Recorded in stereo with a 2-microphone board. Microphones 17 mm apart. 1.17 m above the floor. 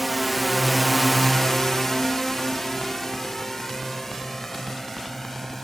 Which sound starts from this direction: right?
A drone, at 0.0 s.